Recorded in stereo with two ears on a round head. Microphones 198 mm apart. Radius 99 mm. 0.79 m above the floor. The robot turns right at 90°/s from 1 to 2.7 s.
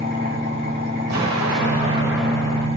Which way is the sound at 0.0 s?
135° right.